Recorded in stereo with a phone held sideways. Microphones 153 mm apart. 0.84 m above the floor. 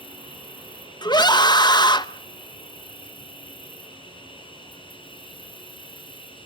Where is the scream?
30° left (ahead or behind), 0.9 m.